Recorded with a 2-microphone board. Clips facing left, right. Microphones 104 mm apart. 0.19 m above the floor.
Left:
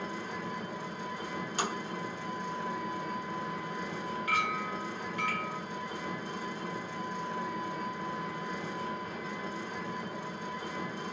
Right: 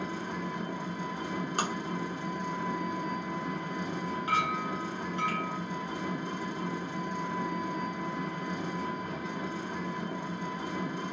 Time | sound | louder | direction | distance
0.0 | an engine running | right 2 dB | 70° right (ahead or behind) | 1.2 m
1.6 | tapping | right 1 dB | 50° right (ahead or behind) | 1.2 m
4.3 | a clink | right 3 dB | 30° right (ahead or behind) | 1.1 m